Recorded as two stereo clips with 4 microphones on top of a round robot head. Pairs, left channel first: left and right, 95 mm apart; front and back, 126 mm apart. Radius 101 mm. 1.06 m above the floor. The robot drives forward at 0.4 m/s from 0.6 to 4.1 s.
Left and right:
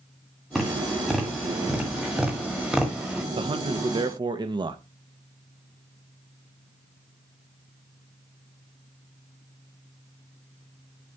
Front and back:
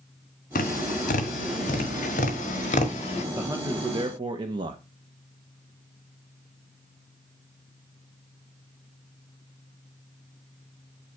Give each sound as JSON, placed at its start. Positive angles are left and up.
{"t": 0.6, "sound": "tapping", "azimuth_deg": 0, "distance_m": 1.7}
{"t": 3.4, "sound": "a man speaking", "azimuth_deg": -110, "distance_m": 0.9}